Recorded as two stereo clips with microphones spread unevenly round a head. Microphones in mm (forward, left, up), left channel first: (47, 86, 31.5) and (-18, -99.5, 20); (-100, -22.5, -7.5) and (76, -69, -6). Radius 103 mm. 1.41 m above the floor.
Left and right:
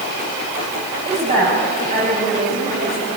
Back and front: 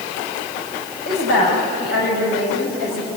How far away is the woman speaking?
About 7 m.